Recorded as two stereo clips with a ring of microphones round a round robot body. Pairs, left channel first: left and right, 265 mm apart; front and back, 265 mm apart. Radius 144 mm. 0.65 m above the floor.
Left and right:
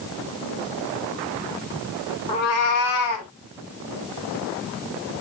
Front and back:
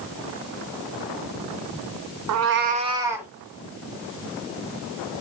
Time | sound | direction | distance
2.3 | a cat meowing | 165° left | 0.6 m